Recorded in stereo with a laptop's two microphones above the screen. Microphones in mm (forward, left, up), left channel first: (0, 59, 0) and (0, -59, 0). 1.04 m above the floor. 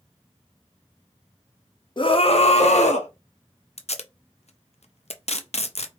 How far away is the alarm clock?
I don't hear an alarm clock.